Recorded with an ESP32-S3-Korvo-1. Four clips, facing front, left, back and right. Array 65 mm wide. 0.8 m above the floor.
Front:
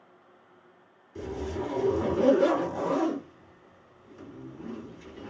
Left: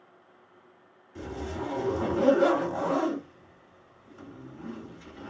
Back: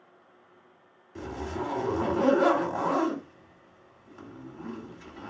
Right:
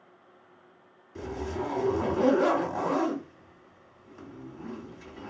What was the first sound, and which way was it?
A zipper, 165° right.